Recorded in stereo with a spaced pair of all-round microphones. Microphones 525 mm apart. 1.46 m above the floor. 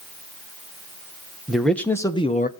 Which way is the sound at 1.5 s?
Centre (ahead or behind).